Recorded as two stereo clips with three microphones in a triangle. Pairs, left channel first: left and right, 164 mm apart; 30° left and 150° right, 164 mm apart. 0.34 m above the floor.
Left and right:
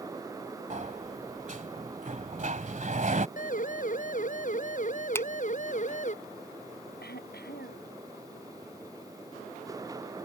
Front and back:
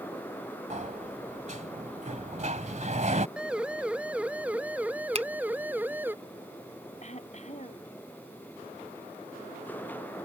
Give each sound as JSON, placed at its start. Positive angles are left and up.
{"t": 0.7, "sound": "a sliding door", "azimuth_deg": -120}
{"t": 3.4, "sound": "a siren", "azimuth_deg": 125}
{"t": 5.2, "sound": "a finger snap", "azimuth_deg": 165}
{"t": 7.0, "sound": "throat clearing", "azimuth_deg": 75}